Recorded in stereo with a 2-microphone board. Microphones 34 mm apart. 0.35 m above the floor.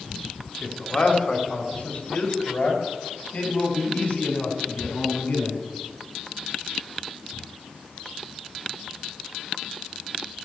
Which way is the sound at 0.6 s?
35° left (ahead or behind).